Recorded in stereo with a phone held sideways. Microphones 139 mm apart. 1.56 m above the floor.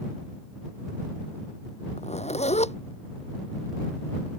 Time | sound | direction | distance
2.0 | a zipper | 55° left (ahead or behind) | ?